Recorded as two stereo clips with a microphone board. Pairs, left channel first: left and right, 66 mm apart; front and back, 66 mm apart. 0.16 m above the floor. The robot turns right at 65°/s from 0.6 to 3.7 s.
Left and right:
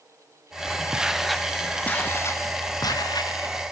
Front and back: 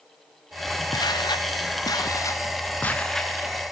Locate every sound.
0.9 s footsteps: 15° right, 2 m; by 3.5 s 105° left, 3.5 m